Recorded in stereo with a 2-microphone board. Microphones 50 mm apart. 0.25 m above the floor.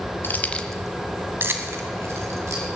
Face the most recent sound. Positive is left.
turn(degrees=-70)  # may be behind; listen again after turning